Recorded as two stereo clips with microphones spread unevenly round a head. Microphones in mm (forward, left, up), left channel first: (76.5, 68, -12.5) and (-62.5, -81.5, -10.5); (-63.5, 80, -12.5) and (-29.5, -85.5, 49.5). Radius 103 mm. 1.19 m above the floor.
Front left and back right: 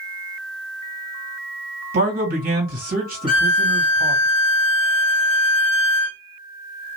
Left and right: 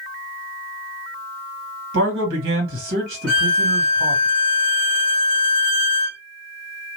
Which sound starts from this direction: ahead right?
A violin, at 3.3 s.